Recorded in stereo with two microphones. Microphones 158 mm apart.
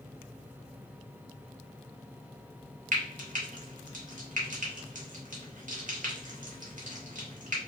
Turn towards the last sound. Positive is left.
turn(degrees=-60)  # may be behind; listen again after turning